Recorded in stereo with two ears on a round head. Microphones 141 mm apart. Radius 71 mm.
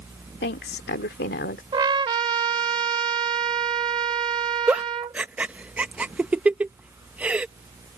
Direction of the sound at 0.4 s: 75° left (ahead or behind).